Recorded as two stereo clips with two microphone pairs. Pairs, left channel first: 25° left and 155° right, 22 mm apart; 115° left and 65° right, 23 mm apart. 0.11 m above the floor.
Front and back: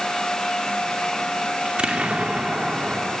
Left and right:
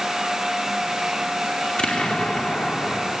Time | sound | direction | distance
1.6 | an explosion | 155° left | 2 m